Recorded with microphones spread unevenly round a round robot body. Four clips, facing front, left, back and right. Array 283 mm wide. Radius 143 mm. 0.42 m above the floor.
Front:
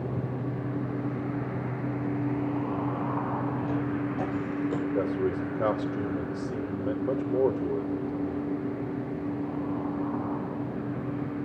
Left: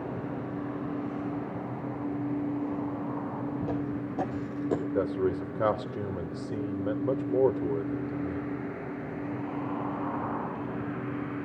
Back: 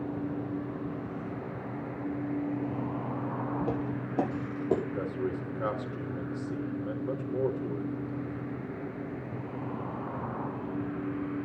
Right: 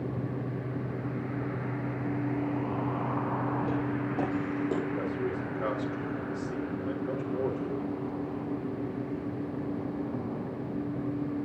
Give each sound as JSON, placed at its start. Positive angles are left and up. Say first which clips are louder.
{"t": 3.6, "sound": "footsteps", "louder": "right 1 dB, front 3 dB", "azimuth_deg": 180, "distance_m": 8.5}
{"t": 5.0, "sound": "a man speaking", "louder": "left 4 dB, front 6 dB", "azimuth_deg": 50, "distance_m": 1.3}